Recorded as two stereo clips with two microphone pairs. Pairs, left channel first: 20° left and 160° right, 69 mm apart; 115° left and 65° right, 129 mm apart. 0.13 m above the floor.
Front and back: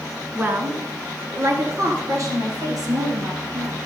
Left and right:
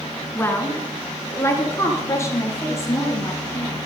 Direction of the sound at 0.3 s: 170° left.